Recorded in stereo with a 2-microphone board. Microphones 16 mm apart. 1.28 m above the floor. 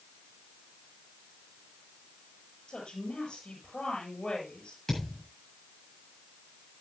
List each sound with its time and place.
2.7 s a woman speaking: 85° left, 7 m
4.9 s a thud: 25° left (ahead or behind), 8 m